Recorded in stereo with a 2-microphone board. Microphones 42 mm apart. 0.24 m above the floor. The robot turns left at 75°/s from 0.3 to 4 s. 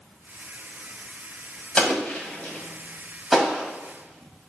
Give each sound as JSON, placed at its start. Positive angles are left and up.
{"t": 1.8, "sound": "an explosion", "side_deg": 25, "distance_m": 1.2}